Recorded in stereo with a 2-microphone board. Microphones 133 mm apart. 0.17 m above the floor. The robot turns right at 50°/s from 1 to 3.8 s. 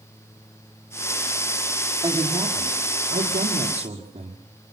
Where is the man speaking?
150° right, 6 m; by 4.4 s 60° right, 6 m.